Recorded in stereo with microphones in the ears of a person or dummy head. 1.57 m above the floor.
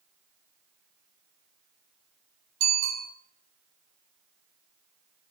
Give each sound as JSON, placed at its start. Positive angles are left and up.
{"t": 2.6, "sound": "a bicycle bell", "side_deg": -80, "distance_m": 7.5}